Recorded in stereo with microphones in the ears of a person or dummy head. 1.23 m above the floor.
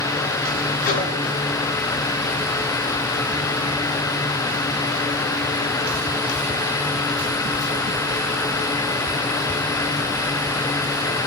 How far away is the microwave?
About 5.5 m.